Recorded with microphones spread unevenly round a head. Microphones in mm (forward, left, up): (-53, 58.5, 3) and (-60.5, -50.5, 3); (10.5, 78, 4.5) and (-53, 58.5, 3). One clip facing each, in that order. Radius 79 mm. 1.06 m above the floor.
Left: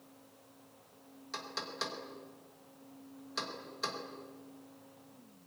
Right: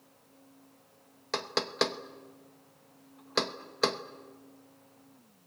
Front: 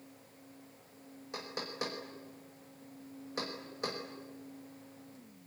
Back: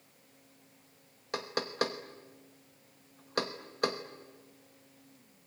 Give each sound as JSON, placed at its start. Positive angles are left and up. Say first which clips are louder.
{"t": 1.3, "sound": "knocking", "louder": "right 11 dB, back 7 dB", "azimuth_deg": -110, "distance_m": 1.2}